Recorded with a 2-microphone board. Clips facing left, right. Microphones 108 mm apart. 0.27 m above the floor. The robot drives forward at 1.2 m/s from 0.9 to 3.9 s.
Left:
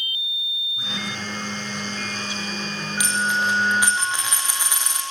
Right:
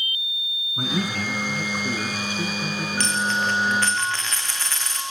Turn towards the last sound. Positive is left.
turn(degrees=15)  # may be behind; listen again after turning